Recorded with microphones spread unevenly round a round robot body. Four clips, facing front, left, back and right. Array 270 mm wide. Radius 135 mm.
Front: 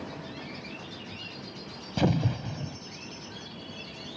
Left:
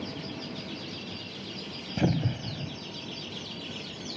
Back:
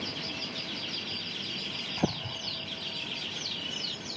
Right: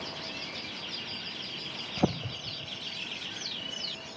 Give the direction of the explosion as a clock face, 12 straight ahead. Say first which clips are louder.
Left 2 dB, front 6 dB; 11 o'clock.